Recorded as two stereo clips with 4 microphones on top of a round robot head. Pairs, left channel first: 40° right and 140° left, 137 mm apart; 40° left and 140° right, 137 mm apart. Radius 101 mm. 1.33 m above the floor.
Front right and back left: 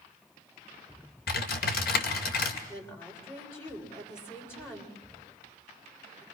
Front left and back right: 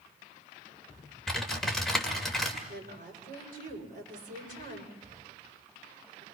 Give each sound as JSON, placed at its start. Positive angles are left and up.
{"t": 1.3, "sound": "typing on a keyboard", "azimuth_deg": -50, "distance_m": 2.0}
{"t": 2.7, "sound": "a woman speaking", "azimuth_deg": -110, "distance_m": 6.0}